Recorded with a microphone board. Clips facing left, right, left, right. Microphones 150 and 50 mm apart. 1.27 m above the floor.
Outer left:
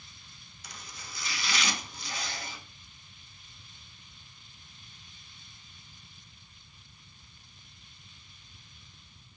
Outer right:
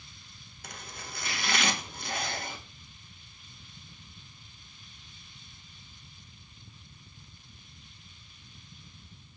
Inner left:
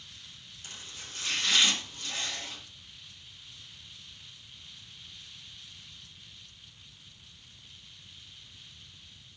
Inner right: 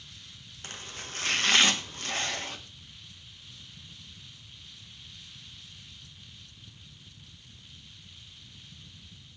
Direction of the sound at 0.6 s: 55° right (ahead or behind).